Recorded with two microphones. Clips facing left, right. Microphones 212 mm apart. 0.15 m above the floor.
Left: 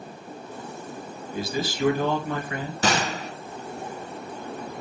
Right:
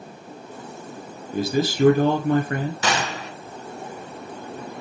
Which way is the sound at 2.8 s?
35° left (ahead or behind).